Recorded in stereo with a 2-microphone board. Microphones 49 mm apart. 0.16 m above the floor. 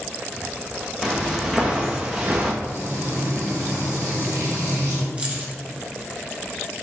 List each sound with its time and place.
1.0 s footsteps: 15° right (ahead or behind), 1.9 m; by 2.5 s 30° right (ahead or behind), 1.3 m
2.6 s frying: 65° right (ahead or behind), 2.0 m
5.2 s keys jangling: 25° right (ahead or behind), 1.2 m